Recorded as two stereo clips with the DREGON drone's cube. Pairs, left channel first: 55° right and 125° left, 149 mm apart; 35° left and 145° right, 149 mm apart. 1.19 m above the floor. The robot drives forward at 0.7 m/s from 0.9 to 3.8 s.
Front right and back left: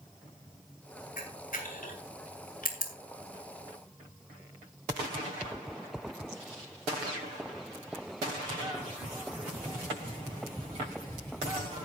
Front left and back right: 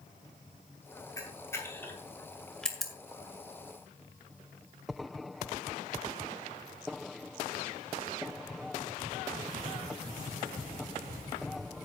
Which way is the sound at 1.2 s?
35° right.